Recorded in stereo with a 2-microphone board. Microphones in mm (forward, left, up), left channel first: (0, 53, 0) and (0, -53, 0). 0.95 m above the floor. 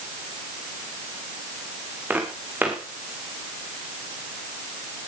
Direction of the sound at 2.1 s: 15° right (ahead or behind).